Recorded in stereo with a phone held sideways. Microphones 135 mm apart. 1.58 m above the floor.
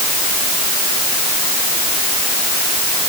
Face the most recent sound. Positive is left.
No sound to turn to.